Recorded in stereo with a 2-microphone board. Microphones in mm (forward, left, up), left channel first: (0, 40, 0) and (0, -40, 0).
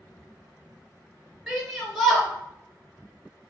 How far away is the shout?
About 1.4 m.